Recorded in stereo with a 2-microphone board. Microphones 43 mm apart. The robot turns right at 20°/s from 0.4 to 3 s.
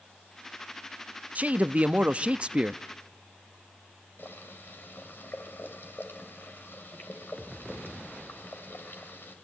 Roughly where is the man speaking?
Right.